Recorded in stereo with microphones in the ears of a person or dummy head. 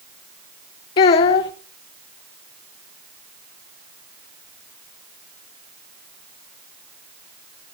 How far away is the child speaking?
About 0.9 m.